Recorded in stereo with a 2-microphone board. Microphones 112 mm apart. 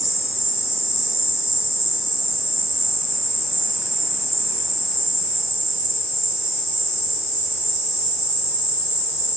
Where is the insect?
10° right (ahead or behind), 1.3 m.